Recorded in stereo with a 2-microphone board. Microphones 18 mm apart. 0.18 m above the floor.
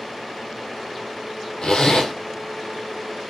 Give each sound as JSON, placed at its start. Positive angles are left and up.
{"t": 1.6, "sound": "a zipper", "side_deg": 80, "distance_m": 0.9}